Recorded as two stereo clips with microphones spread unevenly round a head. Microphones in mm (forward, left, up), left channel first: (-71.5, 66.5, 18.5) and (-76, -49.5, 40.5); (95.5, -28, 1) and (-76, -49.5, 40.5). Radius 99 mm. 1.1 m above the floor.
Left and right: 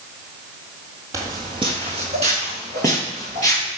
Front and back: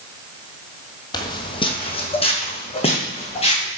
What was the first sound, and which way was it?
Footsteps, 60° right.